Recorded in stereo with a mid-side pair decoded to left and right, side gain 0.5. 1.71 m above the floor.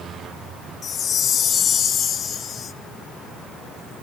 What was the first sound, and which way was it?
A chime, 55° left.